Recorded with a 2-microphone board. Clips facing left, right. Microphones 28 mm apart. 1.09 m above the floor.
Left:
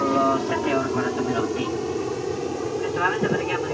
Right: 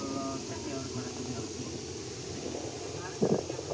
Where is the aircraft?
60° left (ahead or behind); by 3.8 s 70° left (ahead or behind).